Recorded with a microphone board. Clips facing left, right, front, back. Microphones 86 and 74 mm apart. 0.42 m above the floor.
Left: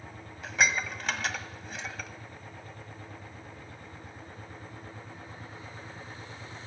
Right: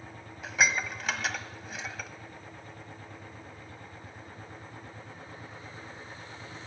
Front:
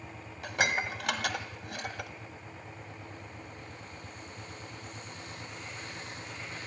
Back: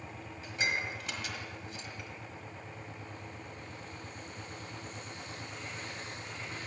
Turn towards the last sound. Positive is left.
turn(degrees=0)